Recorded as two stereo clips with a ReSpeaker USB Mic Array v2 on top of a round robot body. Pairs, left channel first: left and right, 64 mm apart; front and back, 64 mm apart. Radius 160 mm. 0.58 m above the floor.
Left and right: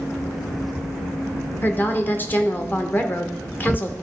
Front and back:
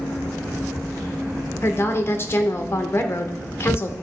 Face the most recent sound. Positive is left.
turn(degrees=40)